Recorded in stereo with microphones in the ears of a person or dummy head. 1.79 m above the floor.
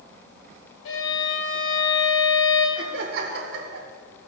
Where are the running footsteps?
I don't hear running footsteps.